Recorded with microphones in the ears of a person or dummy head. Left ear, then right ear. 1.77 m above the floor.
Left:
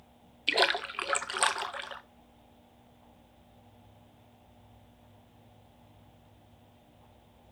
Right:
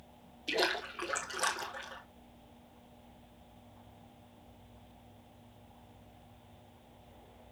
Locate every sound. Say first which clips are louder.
0.5 s a splash: left 6 dB; 20° left (ahead or behind), 0.7 m